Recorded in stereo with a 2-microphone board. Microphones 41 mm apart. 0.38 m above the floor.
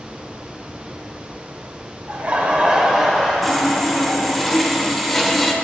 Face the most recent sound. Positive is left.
turn(degrees=5)  # may be behind; listen again after turning